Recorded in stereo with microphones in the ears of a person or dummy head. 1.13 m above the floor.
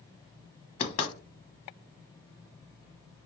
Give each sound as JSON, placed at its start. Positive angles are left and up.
{"t": 0.8, "sound": "knocking", "side_deg": 30, "distance_m": 0.8}